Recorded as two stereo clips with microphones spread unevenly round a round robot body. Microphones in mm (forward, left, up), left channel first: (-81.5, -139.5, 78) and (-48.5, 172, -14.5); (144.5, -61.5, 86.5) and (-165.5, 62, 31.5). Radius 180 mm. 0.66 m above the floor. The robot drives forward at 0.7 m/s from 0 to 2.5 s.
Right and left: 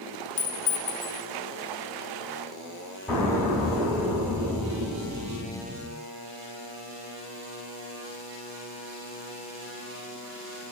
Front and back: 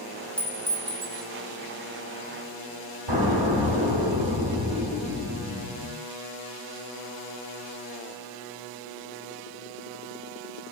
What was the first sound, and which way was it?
A clink, 110° right.